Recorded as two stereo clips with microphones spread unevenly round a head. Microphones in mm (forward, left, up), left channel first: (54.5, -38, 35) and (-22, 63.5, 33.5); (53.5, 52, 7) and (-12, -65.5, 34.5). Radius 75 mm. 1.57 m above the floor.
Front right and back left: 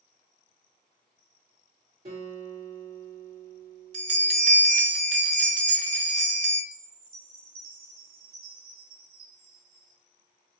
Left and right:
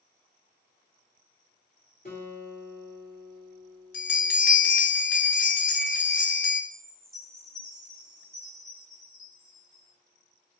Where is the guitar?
100° left, 1.8 m.